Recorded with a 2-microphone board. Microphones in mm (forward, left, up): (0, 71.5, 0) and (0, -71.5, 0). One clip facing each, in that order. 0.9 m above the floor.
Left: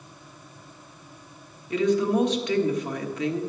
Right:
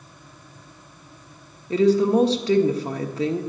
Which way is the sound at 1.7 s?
30° right (ahead or behind).